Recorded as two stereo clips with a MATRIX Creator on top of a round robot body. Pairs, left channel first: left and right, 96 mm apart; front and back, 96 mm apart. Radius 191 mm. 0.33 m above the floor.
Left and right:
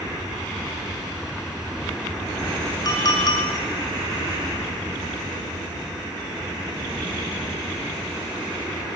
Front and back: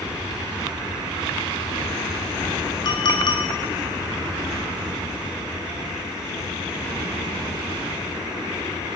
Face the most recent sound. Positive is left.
turn(degrees=40)